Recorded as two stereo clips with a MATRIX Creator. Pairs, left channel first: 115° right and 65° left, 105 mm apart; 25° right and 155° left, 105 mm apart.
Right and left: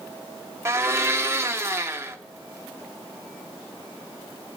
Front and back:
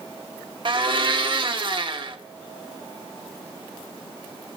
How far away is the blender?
About 0.9 m.